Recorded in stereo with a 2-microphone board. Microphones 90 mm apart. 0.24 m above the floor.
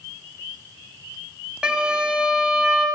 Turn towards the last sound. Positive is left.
turn(degrees=-10)  # may be behind; listen again after turning